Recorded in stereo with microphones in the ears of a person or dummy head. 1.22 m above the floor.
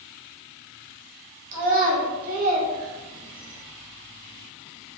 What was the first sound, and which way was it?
A child speaking, 70° right (ahead or behind).